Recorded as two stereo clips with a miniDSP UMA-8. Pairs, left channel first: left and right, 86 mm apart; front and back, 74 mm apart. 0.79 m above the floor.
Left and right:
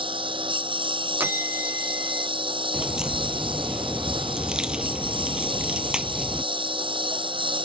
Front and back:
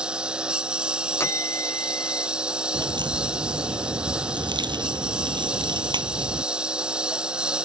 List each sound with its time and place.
0.0 s a lawn mower: 105° right
1.2 s a bell: 35° right
2.7 s a crack: 170° right